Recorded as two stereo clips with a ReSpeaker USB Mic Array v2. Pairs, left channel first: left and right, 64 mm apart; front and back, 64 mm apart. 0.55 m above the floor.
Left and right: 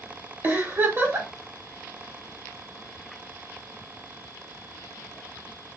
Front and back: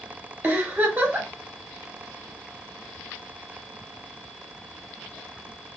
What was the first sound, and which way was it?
A giggle, 130° right.